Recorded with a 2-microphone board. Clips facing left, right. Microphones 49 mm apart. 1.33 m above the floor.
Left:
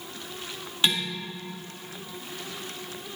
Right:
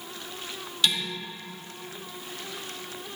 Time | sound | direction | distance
0.8 | dishes clattering | 30° left (ahead or behind) | 2 m